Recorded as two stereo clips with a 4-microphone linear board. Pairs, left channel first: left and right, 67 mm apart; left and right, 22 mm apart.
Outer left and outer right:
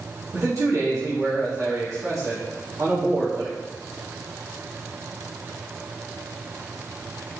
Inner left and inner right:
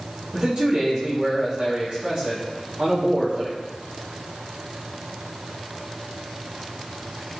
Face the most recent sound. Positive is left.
turn(degrees=-55)  # may be behind; listen again after turning